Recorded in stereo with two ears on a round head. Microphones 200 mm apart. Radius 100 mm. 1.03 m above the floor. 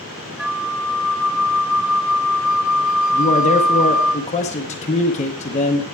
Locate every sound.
0.4 s a flute: 5° right (ahead or behind), 0.6 m
3.1 s a man speaking: 30° left (ahead or behind), 0.7 m